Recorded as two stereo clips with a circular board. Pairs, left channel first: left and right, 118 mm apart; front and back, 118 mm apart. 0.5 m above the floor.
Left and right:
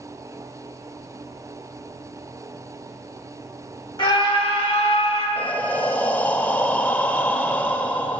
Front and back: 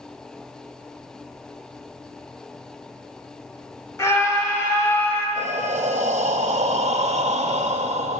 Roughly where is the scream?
Ahead left.